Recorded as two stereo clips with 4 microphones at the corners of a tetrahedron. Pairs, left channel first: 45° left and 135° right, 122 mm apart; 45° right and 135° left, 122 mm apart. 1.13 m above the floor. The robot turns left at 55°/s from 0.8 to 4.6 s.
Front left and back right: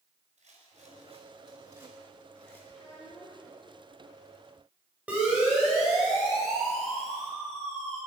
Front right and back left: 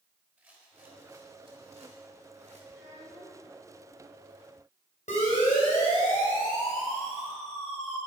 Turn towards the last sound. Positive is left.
turn(degrees=-40)